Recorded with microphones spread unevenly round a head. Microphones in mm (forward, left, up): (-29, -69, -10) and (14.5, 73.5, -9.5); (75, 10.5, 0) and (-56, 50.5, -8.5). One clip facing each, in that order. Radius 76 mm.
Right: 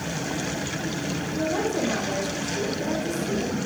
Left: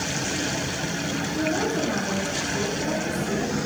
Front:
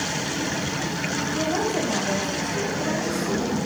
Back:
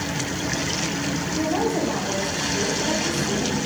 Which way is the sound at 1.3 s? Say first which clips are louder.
Even, back 2 dB; 75° right.